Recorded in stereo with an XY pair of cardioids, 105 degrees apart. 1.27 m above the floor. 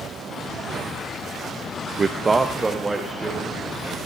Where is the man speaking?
30° right, 0.6 m; by 4.0 s 15° right, 3 m.